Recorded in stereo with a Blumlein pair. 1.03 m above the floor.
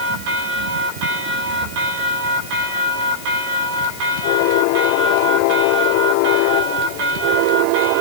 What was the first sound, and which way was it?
Only background noise.